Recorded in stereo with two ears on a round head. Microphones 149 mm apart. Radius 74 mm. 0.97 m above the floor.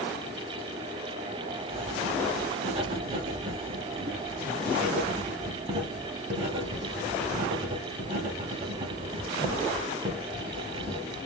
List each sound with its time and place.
1.7 s writing: 35° right (ahead or behind), 0.9 m